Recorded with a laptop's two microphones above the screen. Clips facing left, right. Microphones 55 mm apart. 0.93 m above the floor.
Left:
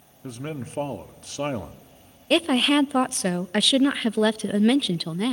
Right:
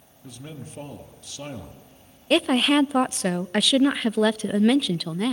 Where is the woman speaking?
Centre (ahead or behind), 0.5 m.